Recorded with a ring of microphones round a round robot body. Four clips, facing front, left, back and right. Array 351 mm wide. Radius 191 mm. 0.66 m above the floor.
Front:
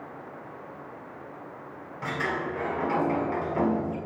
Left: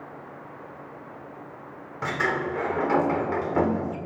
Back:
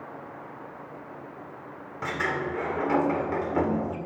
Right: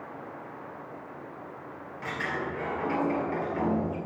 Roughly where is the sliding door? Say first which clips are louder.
Left 6 dB, back 1 dB; behind left.